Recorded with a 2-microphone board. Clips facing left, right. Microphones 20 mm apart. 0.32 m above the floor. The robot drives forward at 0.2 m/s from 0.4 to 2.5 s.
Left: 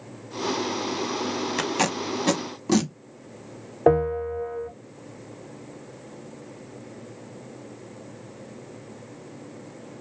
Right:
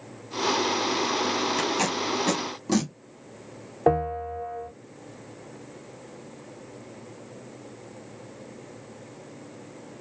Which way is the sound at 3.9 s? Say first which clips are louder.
Left 3 dB; 15° left (ahead or behind).